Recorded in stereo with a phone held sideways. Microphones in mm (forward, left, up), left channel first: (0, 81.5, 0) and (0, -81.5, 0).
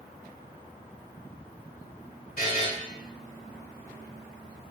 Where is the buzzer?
60° left (ahead or behind), 1.2 m.